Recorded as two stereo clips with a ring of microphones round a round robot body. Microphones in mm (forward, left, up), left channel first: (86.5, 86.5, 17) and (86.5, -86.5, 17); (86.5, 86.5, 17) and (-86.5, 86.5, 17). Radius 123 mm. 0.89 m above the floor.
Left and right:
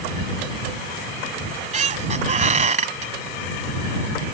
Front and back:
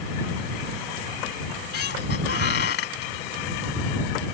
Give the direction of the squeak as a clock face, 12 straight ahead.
2 o'clock.